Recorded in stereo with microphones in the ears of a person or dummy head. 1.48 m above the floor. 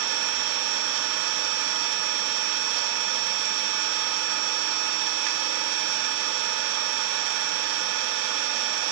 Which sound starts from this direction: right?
An engine running, at 0.0 s.